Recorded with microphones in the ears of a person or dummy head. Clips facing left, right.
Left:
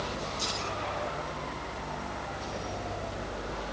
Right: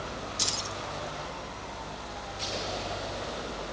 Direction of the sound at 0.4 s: 85° right.